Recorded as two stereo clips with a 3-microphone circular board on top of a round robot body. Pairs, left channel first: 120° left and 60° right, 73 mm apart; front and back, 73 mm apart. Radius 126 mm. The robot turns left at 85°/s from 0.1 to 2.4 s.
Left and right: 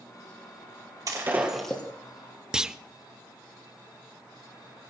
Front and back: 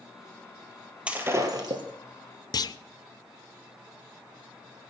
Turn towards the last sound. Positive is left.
turn(degrees=20)